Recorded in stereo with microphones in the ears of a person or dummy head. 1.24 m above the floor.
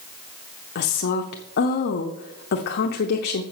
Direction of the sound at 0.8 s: 50° left (ahead or behind).